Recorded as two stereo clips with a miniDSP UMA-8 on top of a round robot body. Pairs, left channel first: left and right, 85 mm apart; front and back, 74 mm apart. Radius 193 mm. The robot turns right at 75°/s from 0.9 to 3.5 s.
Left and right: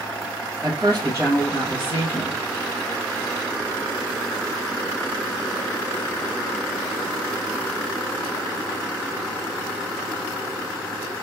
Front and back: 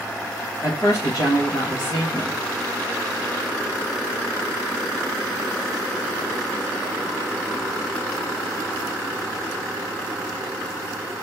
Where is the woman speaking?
40° right, 2 m; by 2.4 s 75° left, 2 m.